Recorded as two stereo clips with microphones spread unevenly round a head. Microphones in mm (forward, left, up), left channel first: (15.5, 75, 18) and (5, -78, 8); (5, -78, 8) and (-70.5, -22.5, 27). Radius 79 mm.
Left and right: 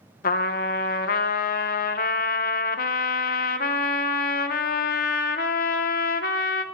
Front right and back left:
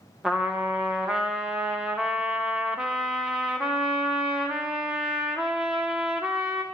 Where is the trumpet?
65° left, 0.7 m.